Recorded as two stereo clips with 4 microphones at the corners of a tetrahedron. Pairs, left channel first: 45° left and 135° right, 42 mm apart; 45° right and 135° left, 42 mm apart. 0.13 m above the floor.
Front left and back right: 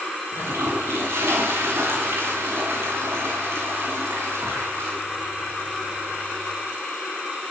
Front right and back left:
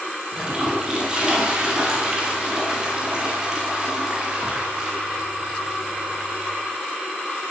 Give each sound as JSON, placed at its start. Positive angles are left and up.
{"t": 0.3, "sound": "a toilet flushing", "azimuth_deg": -155, "distance_m": 9.0}